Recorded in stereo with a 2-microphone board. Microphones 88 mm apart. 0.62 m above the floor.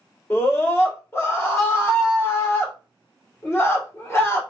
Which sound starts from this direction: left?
A scream, at 0.3 s.